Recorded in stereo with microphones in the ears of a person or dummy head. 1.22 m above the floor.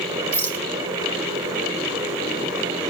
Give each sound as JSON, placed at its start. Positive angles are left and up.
{"t": 0.3, "sound": "a rattle", "side_deg": 15, "distance_m": 1.3}